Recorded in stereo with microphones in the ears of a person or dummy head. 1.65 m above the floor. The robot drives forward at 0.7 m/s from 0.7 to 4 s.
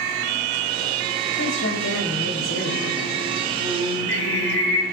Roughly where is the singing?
Left.